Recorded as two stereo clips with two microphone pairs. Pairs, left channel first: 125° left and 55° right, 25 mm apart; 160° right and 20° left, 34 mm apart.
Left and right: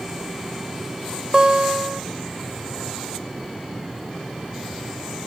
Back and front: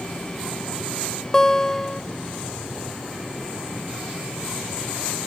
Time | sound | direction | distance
1.3 | a guitar | 95° right | ?